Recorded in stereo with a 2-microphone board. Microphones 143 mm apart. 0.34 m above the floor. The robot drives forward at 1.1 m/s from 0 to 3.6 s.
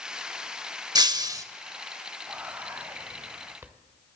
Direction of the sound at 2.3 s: 10° right (ahead or behind).